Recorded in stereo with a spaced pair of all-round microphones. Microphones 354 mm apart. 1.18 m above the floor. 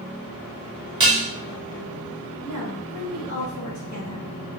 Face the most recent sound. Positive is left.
turn(degrees=50)  # may be behind; listen again after turning